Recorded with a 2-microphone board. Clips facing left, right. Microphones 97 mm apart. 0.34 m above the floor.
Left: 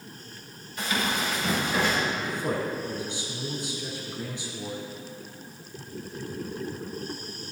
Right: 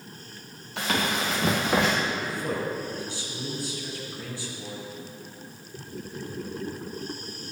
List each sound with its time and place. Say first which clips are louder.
0.8 s running footsteps: right 1 dB; 75° right (ahead or behind), 3 m; by 1.9 s 85° right, 2 m
2.1 s a man speaking: left 1 dB; 20° left (ahead or behind), 3 m